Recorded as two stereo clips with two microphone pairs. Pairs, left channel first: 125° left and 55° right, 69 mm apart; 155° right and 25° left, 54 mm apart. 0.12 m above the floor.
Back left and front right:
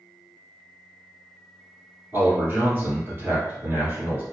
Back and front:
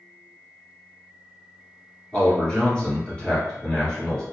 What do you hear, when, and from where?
2.1 s a man speaking: 90° right, 1.5 m